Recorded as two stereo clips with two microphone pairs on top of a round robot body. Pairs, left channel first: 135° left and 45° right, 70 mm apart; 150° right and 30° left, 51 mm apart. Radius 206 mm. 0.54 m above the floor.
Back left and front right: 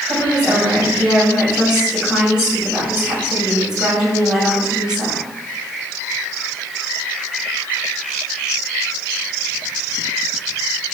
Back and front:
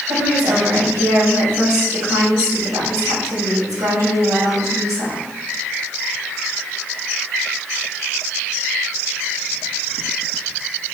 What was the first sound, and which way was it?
A woman speaking, 35° left.